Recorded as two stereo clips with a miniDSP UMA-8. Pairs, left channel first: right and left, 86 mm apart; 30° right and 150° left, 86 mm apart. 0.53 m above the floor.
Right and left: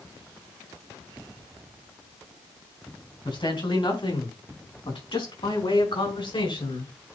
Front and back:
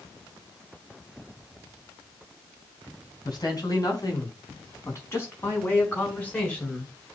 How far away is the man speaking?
About 4 m.